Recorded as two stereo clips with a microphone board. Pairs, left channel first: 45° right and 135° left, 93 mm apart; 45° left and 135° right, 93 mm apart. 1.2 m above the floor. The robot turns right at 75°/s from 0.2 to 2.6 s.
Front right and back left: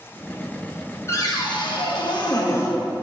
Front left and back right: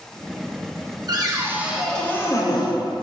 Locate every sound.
1.1 s a cupboard door: 100° right, 0.9 m; by 2.8 s 10° left, 0.9 m